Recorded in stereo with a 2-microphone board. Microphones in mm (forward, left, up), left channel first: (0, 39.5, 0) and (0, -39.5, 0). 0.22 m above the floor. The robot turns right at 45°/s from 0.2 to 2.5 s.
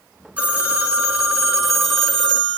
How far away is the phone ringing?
About 1.0 m.